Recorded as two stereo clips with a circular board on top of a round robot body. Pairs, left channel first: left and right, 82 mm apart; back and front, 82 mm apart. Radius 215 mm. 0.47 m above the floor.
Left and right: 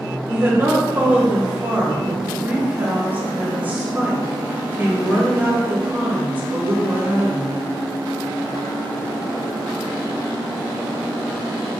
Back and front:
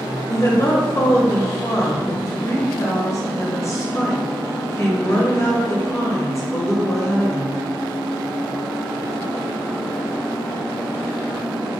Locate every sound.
0.3 s a woman speaking: 150° right, 1.1 m